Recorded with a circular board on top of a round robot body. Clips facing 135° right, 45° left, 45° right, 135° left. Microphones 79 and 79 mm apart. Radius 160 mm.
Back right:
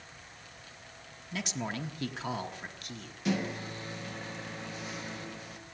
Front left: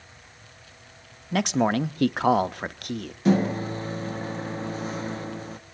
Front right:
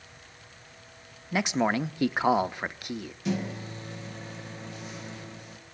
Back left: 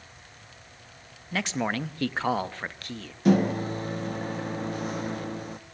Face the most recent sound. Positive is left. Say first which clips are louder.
# front left 10 dB, back left 10 dB
turn(degrees=95)